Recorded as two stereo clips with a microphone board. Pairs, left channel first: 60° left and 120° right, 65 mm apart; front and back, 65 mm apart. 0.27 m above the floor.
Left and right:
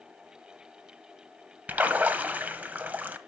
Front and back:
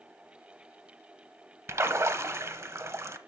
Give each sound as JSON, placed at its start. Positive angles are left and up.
{"t": 1.7, "sound": "a splash", "azimuth_deg": -175, "distance_m": 0.8}